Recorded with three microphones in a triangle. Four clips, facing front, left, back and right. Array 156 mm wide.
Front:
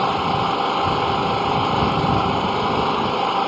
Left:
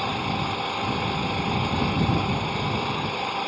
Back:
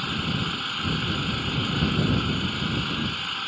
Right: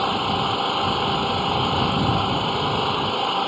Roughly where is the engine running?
Ahead right.